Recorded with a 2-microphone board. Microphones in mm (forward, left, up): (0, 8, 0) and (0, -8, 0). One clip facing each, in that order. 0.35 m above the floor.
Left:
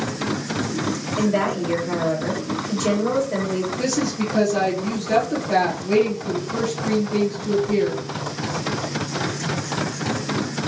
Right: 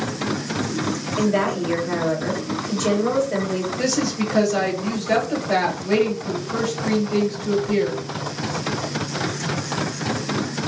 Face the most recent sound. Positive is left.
turn(degrees=-40)  # may be behind; listen again after turning